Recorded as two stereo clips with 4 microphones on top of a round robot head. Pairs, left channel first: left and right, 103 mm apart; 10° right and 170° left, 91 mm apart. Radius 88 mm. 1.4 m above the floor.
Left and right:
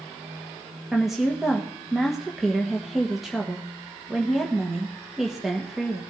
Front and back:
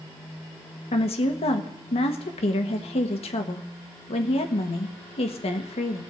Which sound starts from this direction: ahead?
A woman speaking, at 0.9 s.